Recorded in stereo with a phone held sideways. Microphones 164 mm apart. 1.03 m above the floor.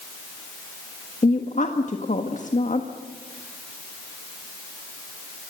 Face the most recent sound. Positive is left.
turn(degrees=50)  # may be behind; listen again after turning